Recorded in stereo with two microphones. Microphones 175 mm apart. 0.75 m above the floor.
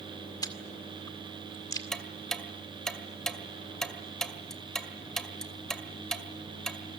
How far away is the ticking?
About 1.7 m.